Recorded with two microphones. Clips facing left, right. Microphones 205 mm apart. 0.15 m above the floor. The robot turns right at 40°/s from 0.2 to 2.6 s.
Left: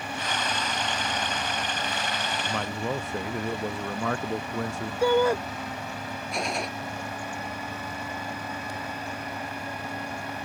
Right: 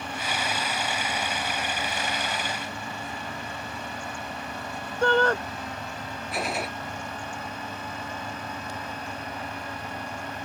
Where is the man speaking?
80° left.